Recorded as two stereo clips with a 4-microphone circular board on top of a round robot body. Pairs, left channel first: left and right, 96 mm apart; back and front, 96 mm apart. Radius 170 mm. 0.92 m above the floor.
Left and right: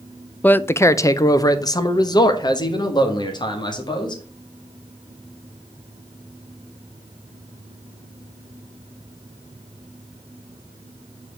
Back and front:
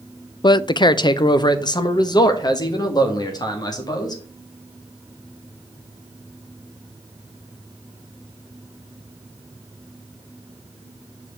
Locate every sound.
0.4 s a man speaking: 160° left, 0.5 m; by 4.2 s 130° left, 2.5 m